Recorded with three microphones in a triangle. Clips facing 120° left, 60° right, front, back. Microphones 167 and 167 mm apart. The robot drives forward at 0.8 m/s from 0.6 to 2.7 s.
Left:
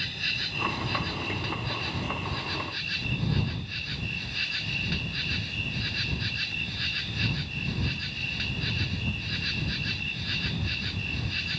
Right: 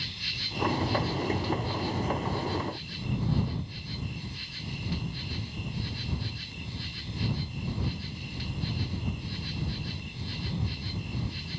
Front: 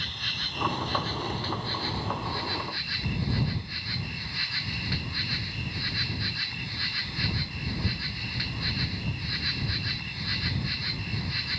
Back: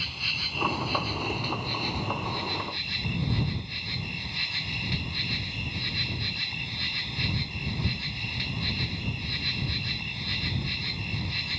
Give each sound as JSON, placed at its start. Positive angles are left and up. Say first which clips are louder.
{"t": 0.0, "sound": "an insect", "louder": "left 3 dB, even", "azimuth_deg": 95}